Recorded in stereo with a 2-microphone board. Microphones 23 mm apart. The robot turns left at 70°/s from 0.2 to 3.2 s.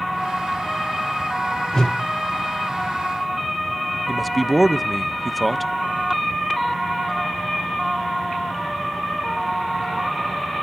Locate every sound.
1.7 s a whoosh: 30° left (ahead or behind), 1.2 m; by 2.0 s 45° left (ahead or behind), 1.2 m
4.1 s a man speaking: centre (ahead or behind), 0.6 m